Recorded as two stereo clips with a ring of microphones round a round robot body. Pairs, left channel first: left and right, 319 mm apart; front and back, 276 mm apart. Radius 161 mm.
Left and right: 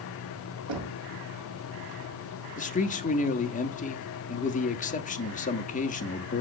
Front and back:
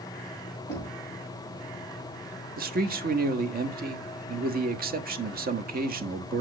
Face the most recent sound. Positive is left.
turn(degrees=145)